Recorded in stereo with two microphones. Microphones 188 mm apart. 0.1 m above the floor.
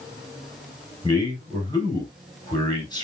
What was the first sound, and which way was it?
A man speaking, 20° left (ahead or behind).